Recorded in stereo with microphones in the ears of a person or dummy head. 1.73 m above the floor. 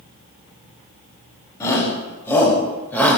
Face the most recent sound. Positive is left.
turn(degrees=5)  # may be behind; listen again after turning